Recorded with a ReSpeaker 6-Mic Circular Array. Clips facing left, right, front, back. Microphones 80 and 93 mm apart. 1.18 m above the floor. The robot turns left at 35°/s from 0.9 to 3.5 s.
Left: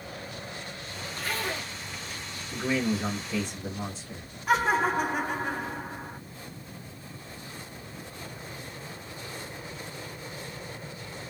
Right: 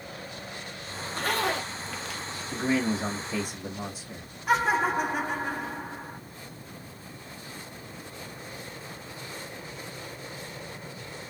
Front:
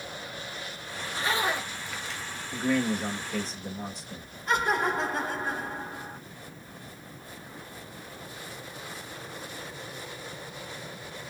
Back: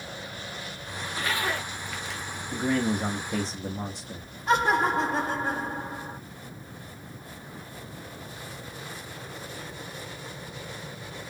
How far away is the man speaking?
About 1.3 m.